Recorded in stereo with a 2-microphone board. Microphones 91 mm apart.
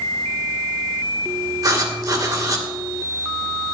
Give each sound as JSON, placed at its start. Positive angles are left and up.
{"t": 1.6, "sound": "writing", "side_deg": -40, "distance_m": 1.9}